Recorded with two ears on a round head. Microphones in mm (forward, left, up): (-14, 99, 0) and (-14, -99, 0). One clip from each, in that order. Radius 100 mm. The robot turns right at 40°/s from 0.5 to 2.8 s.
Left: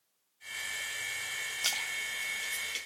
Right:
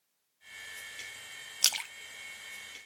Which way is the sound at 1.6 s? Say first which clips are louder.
Right 4 dB; 55° right (ahead or behind).